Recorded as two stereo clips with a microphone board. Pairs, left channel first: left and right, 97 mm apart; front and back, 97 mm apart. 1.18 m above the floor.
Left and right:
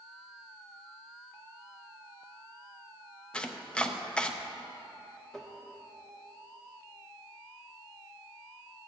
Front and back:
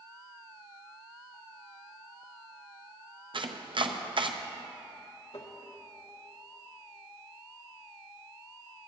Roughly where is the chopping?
Behind.